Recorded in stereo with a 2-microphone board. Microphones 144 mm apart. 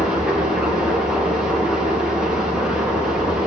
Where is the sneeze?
I don't hear a sneeze.